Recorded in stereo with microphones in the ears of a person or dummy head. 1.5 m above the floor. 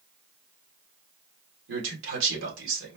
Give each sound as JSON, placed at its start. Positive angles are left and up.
{"t": 1.7, "sound": "a man speaking", "side_deg": -75, "distance_m": 2.5}